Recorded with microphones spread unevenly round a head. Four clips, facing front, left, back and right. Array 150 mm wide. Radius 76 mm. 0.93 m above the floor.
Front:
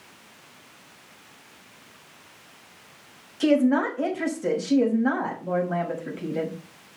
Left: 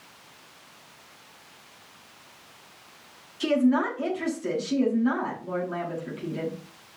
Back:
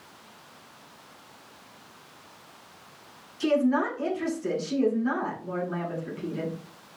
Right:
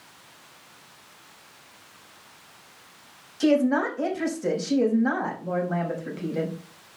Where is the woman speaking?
40° right, 5.5 m.